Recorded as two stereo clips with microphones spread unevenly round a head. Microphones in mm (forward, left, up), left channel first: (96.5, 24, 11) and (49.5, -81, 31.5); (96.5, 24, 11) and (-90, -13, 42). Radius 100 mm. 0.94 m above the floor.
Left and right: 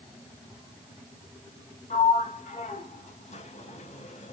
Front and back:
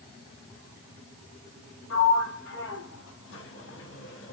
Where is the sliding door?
40° left, 0.7 m.